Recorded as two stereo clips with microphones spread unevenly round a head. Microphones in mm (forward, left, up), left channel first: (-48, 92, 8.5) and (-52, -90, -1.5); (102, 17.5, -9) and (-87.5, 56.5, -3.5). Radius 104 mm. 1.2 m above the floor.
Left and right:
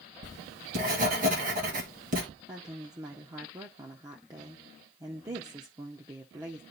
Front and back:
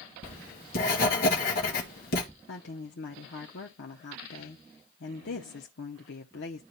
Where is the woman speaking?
20° right, 0.7 m.